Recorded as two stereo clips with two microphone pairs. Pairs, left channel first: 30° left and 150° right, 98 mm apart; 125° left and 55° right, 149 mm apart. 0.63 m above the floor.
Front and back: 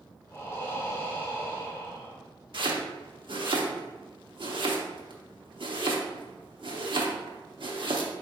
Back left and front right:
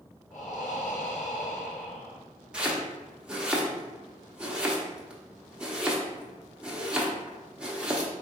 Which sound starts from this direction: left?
Breathing, at 0.3 s.